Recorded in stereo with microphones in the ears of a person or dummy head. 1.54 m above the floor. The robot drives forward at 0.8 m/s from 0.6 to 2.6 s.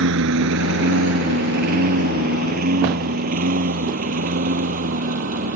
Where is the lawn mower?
70° right (ahead or behind); by 5.6 s 50° right (ahead or behind).